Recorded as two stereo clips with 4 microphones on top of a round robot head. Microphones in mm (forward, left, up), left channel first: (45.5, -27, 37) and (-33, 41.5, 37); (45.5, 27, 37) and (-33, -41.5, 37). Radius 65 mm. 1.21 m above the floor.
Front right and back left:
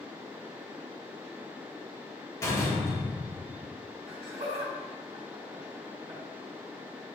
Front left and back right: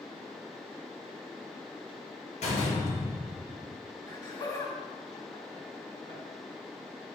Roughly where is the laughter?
Left.